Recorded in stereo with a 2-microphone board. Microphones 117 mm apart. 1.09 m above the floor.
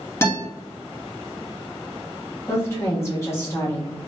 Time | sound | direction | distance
0.2 | a guitar | 25° left (ahead or behind) | 1.3 m
2.5 | a woman speaking | 25° left (ahead or behind) | 1.4 m